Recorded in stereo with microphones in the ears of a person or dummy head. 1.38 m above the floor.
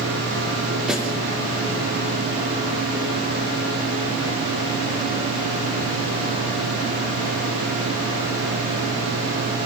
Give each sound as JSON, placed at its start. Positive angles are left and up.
{"t": 0.9, "sound": "a snare drum", "side_deg": -5, "distance_m": 4.0}